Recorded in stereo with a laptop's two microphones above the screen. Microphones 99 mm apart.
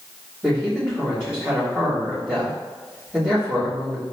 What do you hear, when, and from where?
0.4 s a man speaking: 30° right (ahead or behind), 1.7 m